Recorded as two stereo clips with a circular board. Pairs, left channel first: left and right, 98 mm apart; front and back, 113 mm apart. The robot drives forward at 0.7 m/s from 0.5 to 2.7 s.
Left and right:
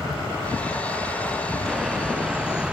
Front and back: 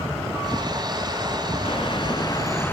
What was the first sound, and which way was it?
A bird, 5° right.